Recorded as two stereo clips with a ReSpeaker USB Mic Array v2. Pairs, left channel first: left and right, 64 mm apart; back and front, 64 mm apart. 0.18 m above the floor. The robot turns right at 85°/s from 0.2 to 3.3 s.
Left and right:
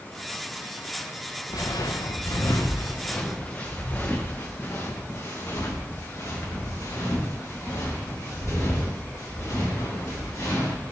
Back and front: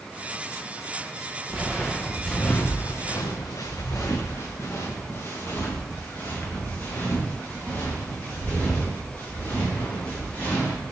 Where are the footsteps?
70° left, 1.1 m; by 10.8 s 115° left, 5.5 m.